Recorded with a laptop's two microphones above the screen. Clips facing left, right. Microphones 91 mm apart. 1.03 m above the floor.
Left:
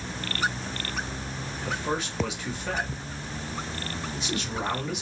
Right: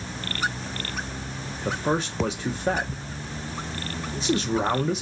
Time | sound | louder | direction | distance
1.6 | a man speaking | right 5 dB | 35° right (ahead or behind) | 0.5 m